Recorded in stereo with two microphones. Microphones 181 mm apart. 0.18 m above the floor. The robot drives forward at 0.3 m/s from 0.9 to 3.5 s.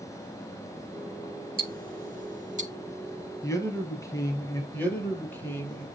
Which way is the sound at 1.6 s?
55° right (ahead or behind).